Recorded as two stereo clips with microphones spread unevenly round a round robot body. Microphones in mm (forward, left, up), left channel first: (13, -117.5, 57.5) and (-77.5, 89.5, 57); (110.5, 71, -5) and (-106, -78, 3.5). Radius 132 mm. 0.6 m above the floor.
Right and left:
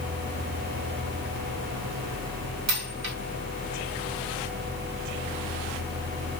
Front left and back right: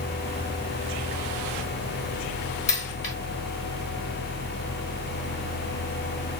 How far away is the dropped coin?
About 1.1 m.